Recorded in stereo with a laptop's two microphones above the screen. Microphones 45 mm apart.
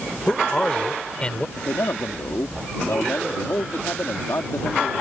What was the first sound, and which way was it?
A man speaking, 20° left (ahead or behind).